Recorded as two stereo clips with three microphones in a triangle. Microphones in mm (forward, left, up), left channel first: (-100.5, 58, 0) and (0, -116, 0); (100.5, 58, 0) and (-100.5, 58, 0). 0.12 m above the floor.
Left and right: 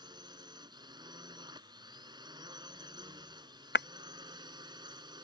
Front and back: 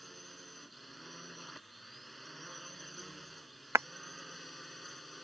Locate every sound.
0.0 s a drone: 90° right
3.8 s breaking glass: 105° left